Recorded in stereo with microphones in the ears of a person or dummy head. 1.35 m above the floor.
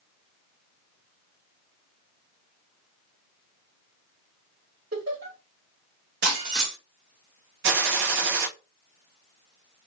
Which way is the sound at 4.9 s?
70° right (ahead or behind).